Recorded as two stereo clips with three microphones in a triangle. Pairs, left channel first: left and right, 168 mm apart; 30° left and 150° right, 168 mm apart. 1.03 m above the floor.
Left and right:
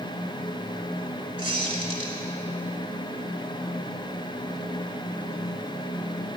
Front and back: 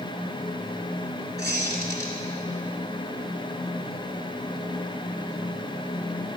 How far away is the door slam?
I don't hear a door slam.